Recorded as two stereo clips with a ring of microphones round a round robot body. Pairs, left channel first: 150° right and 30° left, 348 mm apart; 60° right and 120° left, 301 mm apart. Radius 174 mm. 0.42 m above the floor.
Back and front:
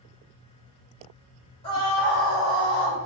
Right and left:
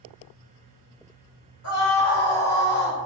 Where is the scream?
80° right, 1.7 m; by 3.0 s 50° right, 2.5 m.